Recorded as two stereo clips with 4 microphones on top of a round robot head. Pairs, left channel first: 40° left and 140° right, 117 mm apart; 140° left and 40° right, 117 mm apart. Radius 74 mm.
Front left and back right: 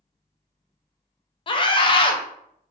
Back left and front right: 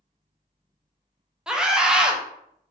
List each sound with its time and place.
1.5 s a scream: 45° left, 0.7 m